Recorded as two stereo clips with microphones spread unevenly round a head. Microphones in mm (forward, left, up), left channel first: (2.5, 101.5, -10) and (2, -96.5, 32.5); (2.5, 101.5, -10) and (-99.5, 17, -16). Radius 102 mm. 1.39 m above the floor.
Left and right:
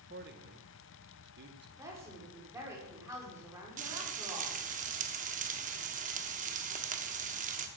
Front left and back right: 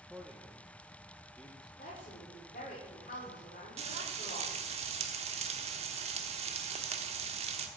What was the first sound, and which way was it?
A man speaking, 50° right.